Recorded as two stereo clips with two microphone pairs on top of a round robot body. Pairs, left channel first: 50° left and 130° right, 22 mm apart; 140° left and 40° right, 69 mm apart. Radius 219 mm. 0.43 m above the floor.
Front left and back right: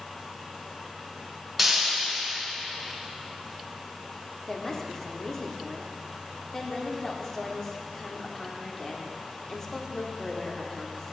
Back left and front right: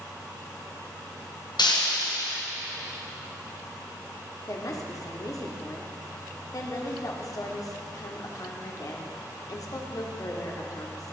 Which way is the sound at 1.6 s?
145° left.